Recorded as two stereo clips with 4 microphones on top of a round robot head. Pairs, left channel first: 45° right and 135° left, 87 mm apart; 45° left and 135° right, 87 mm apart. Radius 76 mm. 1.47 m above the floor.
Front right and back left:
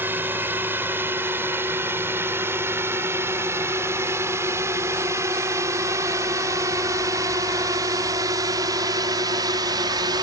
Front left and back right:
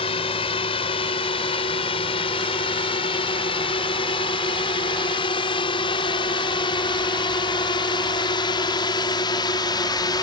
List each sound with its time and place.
0.0 s a drone: 65° left; by 10.2 s 90° left